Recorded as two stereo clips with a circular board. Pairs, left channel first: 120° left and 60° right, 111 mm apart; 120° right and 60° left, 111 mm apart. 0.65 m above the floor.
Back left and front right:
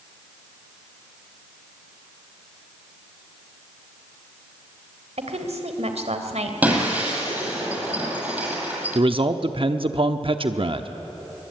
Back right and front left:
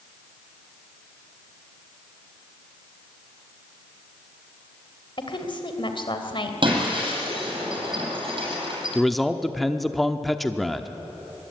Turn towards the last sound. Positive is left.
turn(degrees=-30)